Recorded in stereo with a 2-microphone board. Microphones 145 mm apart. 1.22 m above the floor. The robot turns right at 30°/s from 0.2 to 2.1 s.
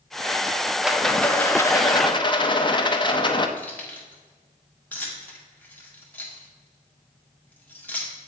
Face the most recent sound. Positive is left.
turn(degrees=10)  # may be behind; listen again after turning